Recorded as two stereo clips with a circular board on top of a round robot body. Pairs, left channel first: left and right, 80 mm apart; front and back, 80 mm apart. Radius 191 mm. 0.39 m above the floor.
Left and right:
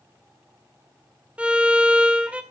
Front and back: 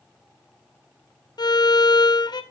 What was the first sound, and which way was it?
A violin, 15° right.